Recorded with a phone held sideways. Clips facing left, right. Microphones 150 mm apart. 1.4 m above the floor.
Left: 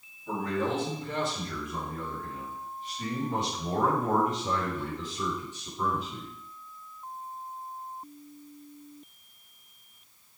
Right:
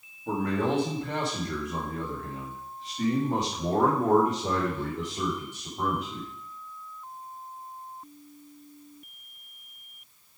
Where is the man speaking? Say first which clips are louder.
Right 3 dB; 60° right (ahead or behind), 2.5 m; by 6.3 s 65° right (ahead or behind), 3.5 m.